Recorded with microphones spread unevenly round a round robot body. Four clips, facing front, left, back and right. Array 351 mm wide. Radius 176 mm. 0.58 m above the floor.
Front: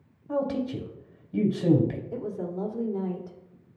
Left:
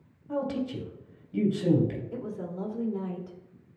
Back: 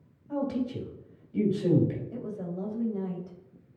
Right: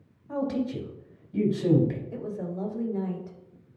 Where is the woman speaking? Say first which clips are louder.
Right 2 dB, front 4 dB; 20° left, 2.5 m.